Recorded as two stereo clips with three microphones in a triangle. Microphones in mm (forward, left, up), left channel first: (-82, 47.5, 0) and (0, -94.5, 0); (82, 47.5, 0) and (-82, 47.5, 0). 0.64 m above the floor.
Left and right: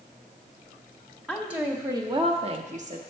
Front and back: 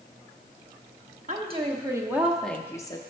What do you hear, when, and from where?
1.3 s a woman speaking: 150° right, 1.1 m; by 3.0 s 55° right, 1.0 m